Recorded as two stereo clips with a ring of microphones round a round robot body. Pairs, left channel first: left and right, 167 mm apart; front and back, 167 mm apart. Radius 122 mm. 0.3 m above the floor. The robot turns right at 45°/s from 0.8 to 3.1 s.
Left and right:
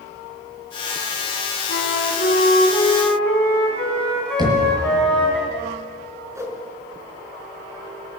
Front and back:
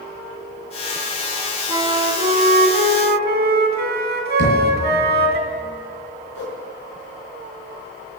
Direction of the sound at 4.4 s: 25° right.